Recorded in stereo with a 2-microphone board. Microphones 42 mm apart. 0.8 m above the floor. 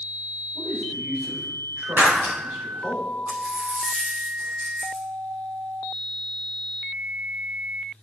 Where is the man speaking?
60° right (ahead or behind), 4 m.